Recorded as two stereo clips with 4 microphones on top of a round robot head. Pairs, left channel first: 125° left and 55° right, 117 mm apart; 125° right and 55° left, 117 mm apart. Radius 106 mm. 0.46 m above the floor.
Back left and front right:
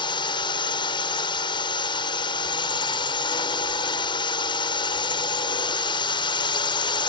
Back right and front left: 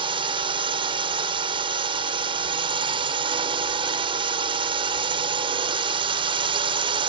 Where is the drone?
85° left.